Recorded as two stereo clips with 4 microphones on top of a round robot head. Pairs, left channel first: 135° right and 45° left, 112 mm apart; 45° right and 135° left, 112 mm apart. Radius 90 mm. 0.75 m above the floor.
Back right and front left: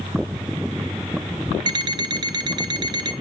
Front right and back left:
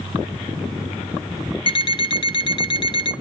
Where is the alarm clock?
5° right, 1.6 m.